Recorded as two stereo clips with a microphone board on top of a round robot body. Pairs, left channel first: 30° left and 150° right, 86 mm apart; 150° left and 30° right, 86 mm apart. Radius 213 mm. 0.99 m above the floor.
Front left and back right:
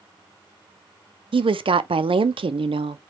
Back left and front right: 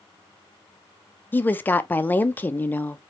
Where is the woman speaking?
140° right, 0.6 m.